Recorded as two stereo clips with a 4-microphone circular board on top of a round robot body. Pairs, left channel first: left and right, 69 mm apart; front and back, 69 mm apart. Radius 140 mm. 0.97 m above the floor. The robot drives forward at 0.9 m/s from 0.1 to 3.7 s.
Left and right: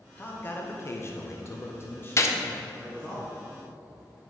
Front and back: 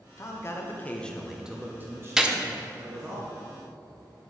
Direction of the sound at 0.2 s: 30° left.